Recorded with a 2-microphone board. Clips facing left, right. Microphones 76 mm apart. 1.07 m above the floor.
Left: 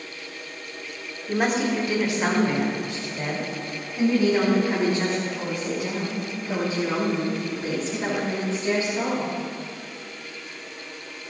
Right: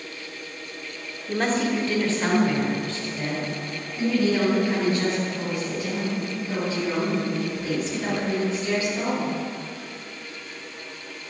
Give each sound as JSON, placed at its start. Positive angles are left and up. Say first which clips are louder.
{"t": 1.3, "sound": "a woman speaking", "louder": "left 1 dB", "side_deg": 5, "distance_m": 2.0}